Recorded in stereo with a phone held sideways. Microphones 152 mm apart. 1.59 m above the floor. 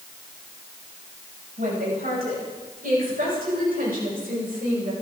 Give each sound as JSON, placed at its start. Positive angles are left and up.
{"t": 1.6, "sound": "a woman speaking", "side_deg": -75, "distance_m": 10.0}